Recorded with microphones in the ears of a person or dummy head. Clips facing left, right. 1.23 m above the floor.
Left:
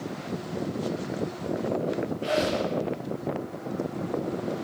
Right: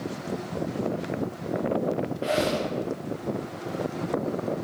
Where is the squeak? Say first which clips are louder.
Right 1 dB; 10° right (ahead or behind), 1.2 m.